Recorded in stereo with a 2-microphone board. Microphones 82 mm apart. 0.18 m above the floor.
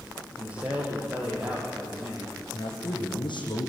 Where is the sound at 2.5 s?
75° left (ahead or behind), 7 m.